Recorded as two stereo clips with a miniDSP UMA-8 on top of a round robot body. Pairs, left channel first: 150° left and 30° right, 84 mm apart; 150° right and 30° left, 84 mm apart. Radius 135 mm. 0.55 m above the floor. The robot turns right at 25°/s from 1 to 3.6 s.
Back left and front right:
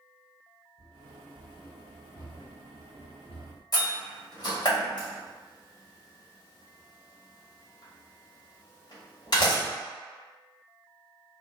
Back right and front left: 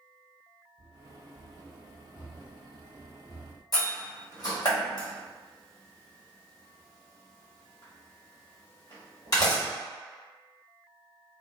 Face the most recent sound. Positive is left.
turn(degrees=180)